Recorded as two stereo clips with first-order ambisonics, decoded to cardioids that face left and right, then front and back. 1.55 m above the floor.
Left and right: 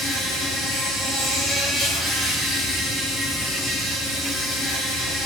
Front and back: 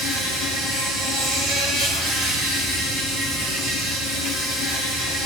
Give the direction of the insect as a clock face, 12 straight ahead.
6 o'clock.